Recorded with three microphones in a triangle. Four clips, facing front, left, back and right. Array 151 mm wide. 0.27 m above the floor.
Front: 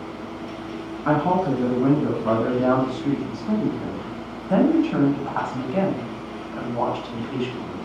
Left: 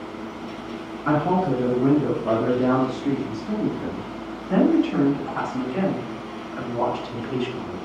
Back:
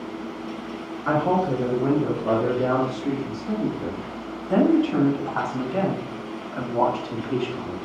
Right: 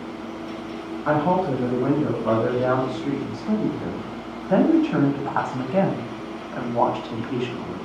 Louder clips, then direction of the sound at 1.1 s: Even, front 1 dB; 15° right.